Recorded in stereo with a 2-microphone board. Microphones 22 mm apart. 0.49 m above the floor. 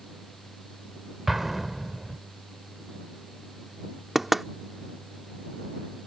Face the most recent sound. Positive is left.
turn(degrees=-10)  # may be behind; listen again after turning